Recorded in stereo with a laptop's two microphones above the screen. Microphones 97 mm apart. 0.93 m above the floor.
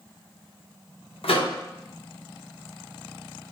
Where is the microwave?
70° left (ahead or behind), 0.6 m.